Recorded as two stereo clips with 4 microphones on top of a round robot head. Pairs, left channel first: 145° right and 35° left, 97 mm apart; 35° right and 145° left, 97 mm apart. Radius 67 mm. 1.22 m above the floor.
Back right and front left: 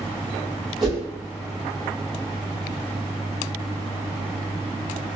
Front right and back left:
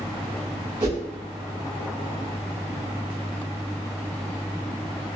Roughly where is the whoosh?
Behind left.